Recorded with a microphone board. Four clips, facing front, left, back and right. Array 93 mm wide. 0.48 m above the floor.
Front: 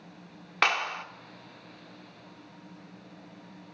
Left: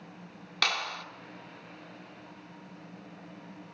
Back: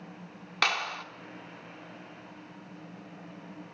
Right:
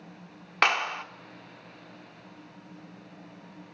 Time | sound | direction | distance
0.6 | a clap | 70° right | 0.8 m